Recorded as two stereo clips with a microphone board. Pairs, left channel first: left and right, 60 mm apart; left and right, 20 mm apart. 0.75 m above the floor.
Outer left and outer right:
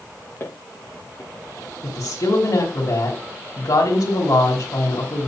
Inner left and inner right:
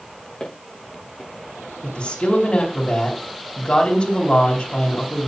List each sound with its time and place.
0.4 s footsteps: 35° left (ahead or behind), 6 m
1.8 s a woman speaking: 75° left (ahead or behind), 3.5 m